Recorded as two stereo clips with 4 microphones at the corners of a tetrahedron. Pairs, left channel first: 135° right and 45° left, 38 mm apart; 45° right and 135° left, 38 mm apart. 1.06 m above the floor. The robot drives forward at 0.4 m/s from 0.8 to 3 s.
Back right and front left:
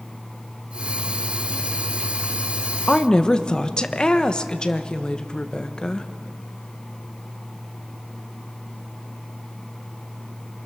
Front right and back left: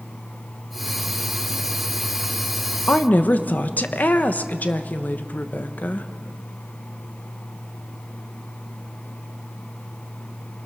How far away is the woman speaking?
About 1.1 m.